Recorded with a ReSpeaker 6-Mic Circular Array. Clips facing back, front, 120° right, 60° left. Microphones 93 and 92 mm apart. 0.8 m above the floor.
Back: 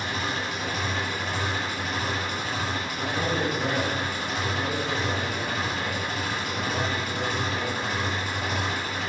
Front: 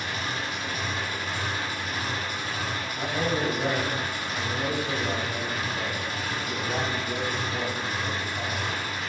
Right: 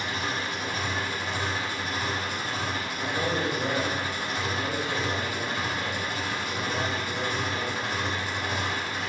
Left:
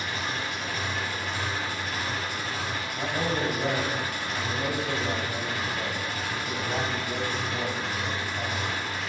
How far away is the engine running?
About 4.5 m.